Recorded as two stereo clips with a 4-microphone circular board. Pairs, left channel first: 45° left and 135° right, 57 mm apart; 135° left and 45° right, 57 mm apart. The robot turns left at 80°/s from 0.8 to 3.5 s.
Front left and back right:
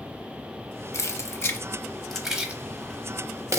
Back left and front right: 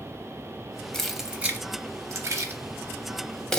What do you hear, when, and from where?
0.9 s keys jangling: 55° left, 0.6 m; by 3.6 s 150° right, 0.6 m